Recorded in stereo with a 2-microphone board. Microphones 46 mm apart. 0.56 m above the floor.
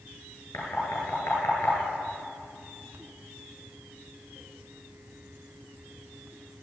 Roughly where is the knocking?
Left.